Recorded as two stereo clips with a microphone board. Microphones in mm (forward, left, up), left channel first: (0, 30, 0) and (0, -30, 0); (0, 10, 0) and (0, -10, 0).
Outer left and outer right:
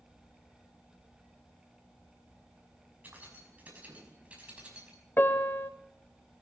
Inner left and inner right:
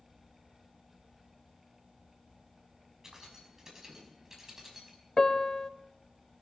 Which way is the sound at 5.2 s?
40° left (ahead or behind).